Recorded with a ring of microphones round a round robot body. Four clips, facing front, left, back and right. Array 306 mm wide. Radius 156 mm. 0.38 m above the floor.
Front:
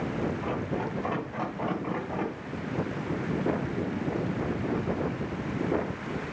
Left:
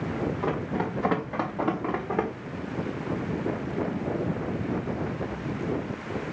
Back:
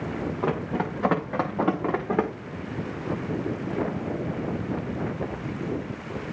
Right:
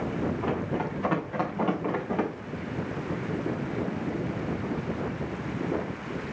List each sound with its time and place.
0.4 s running footsteps: 170° left, 2.5 m; by 2.3 s 165° left, 4 m